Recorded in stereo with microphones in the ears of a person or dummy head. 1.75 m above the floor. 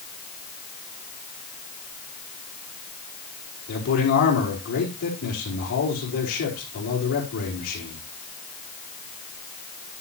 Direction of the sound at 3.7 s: 50° left (ahead or behind).